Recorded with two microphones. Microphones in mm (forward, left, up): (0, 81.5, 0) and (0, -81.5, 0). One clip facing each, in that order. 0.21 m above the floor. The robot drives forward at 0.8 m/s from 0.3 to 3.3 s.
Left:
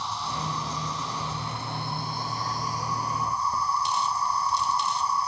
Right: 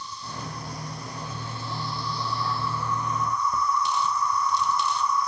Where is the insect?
70° left (ahead or behind); by 5.3 s 30° left (ahead or behind).